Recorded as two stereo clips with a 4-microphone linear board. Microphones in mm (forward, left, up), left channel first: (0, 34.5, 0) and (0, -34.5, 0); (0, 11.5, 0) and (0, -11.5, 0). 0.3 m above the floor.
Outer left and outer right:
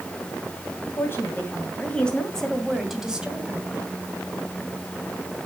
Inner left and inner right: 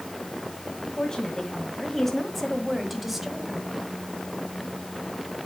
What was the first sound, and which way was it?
A woman speaking, 35° left (ahead or behind).